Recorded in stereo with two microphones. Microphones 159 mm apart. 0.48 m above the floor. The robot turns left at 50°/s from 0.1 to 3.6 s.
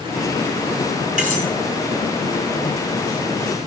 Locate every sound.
1.2 s cutlery clinking: 50° right (ahead or behind), 3.5 m; by 1.5 s 65° right (ahead or behind), 3.5 m